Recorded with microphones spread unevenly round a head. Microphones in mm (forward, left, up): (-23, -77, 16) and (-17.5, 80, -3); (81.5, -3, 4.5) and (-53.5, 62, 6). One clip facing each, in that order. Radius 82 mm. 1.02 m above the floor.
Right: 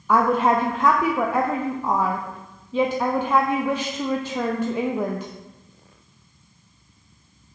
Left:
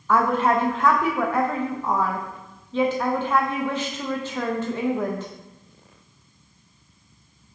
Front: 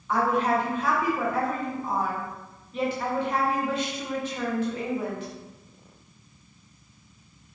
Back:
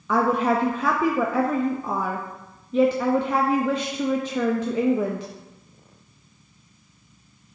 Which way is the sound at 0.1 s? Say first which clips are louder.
Right 1 dB, back 3 dB; 170° right.